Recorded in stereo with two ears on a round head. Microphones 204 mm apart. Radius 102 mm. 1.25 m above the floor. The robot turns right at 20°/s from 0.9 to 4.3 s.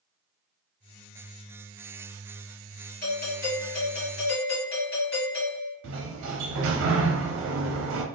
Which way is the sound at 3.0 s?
45° left (ahead or behind).